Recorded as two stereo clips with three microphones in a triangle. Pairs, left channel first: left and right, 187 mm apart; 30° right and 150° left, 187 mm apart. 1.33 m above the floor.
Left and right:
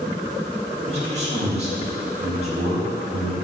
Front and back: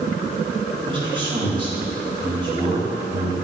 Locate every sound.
0.9 s a man speaking: 145° right, 2.0 m